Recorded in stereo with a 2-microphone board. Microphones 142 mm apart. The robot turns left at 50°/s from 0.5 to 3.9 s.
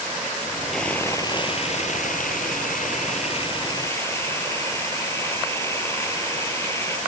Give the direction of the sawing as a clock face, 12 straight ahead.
6 o'clock.